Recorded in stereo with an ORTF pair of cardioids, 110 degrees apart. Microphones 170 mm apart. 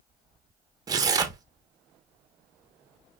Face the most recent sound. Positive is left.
turn(degrees=-20)